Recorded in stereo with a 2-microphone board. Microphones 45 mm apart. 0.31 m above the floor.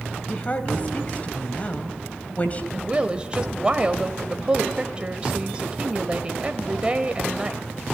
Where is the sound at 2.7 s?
25° right (ahead or behind), 1.2 m.